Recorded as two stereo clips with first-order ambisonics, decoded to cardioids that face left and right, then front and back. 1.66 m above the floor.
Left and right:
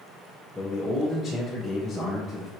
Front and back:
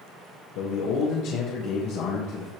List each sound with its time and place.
0.6 s a man speaking: 10° left, 1.5 m